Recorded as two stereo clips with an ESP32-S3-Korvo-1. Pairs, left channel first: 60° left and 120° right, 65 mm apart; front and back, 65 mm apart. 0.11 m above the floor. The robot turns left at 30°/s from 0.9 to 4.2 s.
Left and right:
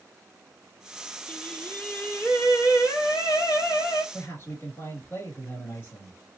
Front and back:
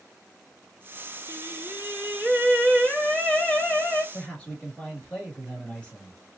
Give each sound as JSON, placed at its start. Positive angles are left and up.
{"t": 1.3, "sound": "singing", "azimuth_deg": 135, "distance_m": 1.0}
{"t": 4.1, "sound": "a man speaking", "azimuth_deg": 65, "distance_m": 2.0}